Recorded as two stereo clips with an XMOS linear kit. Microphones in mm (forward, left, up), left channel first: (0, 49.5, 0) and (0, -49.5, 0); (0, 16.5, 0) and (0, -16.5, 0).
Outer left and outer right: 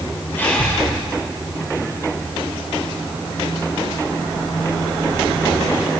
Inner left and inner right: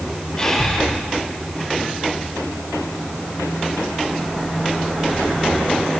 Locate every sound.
0.4 s breathing: 20° left (ahead or behind), 4.5 m